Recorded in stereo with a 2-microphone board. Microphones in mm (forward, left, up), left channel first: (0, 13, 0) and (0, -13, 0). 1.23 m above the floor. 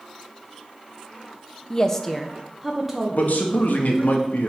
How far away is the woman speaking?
About 0.5 m.